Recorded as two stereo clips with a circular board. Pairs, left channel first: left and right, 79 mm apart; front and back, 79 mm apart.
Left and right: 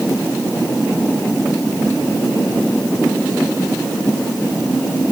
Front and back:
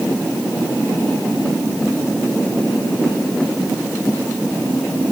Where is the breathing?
I don't hear breathing.